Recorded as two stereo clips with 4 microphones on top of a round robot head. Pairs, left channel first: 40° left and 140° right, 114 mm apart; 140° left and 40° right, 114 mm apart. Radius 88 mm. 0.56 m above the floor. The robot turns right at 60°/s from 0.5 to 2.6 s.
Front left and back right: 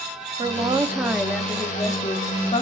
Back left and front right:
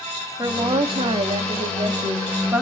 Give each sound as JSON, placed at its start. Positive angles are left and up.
{"t": 0.4, "sound": "a woman speaking", "azimuth_deg": -95, "distance_m": 0.8}